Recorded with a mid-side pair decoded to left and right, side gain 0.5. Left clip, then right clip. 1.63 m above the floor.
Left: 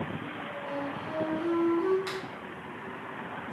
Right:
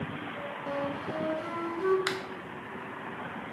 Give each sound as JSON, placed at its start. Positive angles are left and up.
{"t": 0.7, "sound": "a flute", "azimuth_deg": -60, "distance_m": 0.9}
{"t": 2.1, "sound": "a finger snap", "azimuth_deg": -60, "distance_m": 0.5}